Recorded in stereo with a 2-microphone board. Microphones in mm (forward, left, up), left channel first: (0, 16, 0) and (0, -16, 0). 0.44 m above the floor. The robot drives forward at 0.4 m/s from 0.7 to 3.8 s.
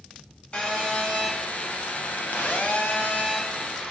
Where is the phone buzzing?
35° left (ahead or behind), 0.8 m; by 3.9 s 40° left (ahead or behind), 0.8 m.